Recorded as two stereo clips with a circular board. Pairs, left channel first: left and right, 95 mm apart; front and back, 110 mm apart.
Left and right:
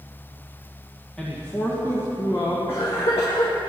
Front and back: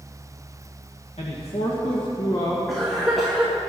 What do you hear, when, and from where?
1.2 s a man speaking: 10° left, 1.8 m; by 2.6 s 50° left, 2.5 m
2.7 s a cough: 90° left, 2 m